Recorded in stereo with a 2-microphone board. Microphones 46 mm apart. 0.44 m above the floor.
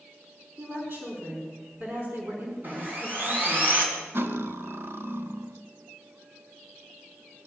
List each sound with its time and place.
0.6 s a woman speaking: 60° right (ahead or behind), 4.5 m
2.6 s sawing: 40° right (ahead or behind), 3.5 m
4.1 s cutlery clinking: 55° right (ahead or behind), 0.8 m